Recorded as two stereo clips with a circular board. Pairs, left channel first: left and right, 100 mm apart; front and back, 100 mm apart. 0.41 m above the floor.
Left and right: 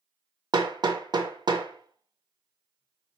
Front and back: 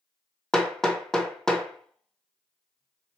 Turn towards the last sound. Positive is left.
turn(degrees=-80)